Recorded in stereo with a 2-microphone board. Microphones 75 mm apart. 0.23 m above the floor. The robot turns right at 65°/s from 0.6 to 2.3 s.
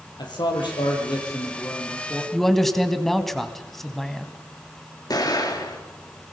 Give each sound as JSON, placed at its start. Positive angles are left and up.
{"t": 0.2, "sound": "a man speaking", "azimuth_deg": 80, "distance_m": 5.0}
{"t": 2.3, "sound": "a man speaking", "side_deg": 5, "distance_m": 1.5}
{"t": 5.1, "sound": "an explosion", "side_deg": 60, "distance_m": 4.0}